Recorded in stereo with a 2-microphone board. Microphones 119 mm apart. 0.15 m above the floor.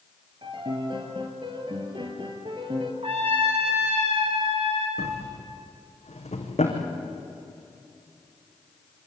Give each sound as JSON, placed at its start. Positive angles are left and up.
{"t": 0.4, "sound": "a piano", "side_deg": -40, "distance_m": 3.5}
{"t": 3.0, "sound": "a trumpet", "side_deg": -55, "distance_m": 9.5}
{"t": 5.0, "sound": "a drawer", "side_deg": 70, "distance_m": 5.0}